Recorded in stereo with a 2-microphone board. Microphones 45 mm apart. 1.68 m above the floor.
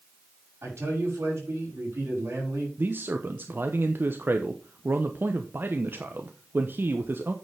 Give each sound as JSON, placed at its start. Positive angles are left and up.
{"t": 0.6, "sound": "a man speaking", "side_deg": -65, "distance_m": 6.0}
{"t": 2.8, "sound": "a man speaking", "side_deg": -45, "distance_m": 0.9}